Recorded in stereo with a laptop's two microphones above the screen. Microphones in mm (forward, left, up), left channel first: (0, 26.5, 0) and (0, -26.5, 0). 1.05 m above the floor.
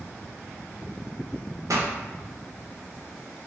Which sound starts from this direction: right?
A pop, at 1.7 s.